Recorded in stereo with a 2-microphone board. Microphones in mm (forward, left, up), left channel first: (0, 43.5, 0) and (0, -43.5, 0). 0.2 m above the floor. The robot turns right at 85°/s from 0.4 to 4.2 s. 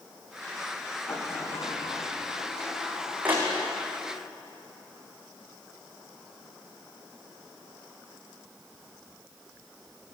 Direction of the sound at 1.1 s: 10° left (ahead or behind).